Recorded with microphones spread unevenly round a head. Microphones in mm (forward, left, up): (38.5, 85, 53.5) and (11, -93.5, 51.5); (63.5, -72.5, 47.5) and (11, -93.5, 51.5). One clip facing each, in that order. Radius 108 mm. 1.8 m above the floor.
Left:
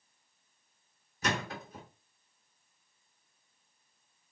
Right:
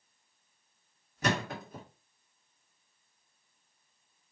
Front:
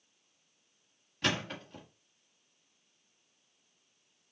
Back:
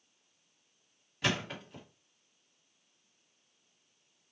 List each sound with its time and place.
1.2 s a thud: 75° right, 1.7 m